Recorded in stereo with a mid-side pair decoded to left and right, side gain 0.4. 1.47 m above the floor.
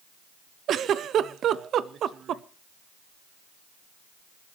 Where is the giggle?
70° right, 0.7 m.